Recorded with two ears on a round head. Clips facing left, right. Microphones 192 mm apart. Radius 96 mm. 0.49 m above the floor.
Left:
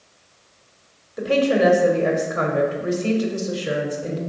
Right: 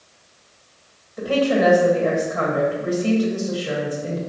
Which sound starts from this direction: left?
A woman speaking, at 1.2 s.